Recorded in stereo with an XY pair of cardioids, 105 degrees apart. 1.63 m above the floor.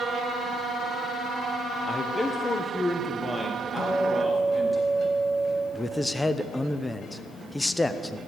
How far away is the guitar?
About 5.5 m.